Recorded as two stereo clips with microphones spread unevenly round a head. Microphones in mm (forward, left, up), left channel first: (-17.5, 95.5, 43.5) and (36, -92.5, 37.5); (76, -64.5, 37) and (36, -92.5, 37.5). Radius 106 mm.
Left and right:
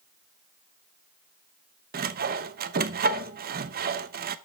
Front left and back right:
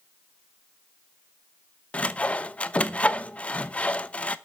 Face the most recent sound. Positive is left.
turn(degrees=-30)